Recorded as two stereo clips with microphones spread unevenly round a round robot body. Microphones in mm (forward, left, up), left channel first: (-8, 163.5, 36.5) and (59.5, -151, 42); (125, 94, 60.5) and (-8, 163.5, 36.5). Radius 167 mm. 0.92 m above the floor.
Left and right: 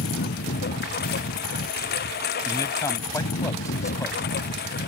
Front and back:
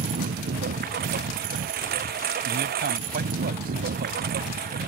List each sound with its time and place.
0.0 s a lawn mower: 165° left
2.5 s a man speaking: 175° right